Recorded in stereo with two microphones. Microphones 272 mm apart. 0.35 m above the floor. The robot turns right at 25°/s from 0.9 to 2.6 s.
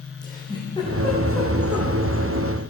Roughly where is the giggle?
Centre.